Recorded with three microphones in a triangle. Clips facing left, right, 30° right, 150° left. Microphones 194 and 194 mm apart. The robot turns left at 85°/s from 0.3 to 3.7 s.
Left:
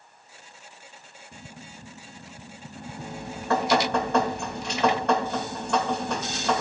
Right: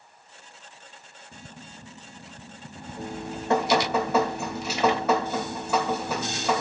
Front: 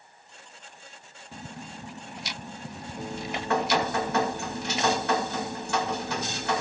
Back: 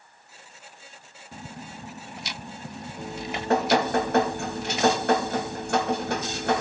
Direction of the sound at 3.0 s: 110° right.